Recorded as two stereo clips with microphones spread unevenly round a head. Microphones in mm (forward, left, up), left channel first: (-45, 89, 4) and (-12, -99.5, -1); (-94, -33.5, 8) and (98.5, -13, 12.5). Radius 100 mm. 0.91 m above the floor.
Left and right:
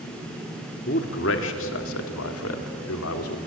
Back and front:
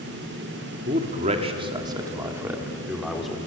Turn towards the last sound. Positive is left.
turn(degrees=100)